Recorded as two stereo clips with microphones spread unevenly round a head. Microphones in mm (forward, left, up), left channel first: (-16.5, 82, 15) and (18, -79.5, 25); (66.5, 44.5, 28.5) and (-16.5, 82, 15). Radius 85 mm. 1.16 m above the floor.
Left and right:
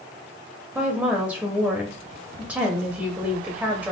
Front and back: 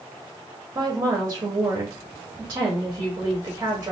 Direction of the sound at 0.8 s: 155° right.